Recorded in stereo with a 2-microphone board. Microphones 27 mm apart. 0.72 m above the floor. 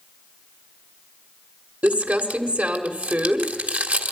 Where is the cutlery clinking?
No cutlery clinking in this recording.